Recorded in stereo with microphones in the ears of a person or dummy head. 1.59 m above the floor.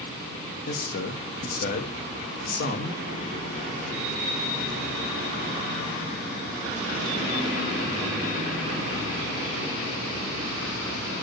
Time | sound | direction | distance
0.7 | a man speaking | 55° left (ahead or behind) | 2 m